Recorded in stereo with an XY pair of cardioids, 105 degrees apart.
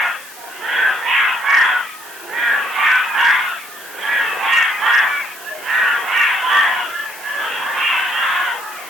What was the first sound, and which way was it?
Only background noise.